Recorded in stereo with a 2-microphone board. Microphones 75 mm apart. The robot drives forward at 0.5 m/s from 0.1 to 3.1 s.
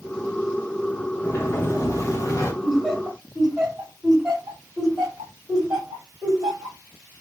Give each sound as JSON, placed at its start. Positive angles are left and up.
{"t": 1.2, "sound": "a sliding door", "side_deg": 30, "distance_m": 1.0}
{"t": 2.6, "sound": "laughter", "side_deg": -5, "distance_m": 3.0}